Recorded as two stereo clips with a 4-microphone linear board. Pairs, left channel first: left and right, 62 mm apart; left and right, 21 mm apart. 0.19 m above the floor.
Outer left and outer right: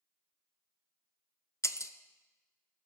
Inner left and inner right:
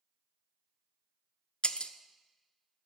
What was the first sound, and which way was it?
Breaking glass, 55° left (ahead or behind).